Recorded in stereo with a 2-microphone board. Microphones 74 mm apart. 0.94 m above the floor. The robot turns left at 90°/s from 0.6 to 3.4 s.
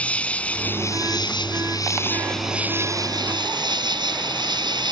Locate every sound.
0.0 s an insect: 165° left; by 4.9 s 90° right